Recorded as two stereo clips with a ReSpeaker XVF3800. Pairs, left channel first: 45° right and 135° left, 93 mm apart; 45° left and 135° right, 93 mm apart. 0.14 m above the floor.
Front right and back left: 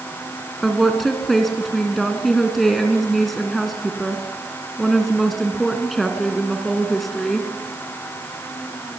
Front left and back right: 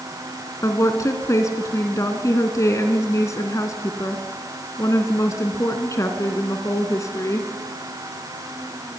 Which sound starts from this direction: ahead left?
A woman speaking, at 0.6 s.